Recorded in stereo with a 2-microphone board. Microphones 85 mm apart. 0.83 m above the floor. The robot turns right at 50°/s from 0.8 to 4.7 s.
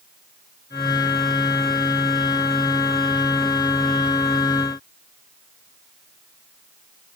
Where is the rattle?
No rattle in this recording.